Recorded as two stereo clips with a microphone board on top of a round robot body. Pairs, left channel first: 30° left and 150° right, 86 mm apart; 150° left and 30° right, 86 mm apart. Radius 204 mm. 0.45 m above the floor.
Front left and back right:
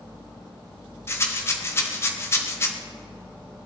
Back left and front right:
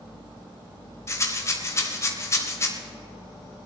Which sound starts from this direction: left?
A rattle, at 1.1 s.